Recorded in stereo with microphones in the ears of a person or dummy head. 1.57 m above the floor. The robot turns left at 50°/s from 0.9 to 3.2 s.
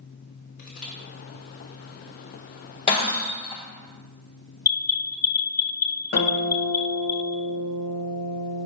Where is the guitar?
50° left (ahead or behind), 1.9 m.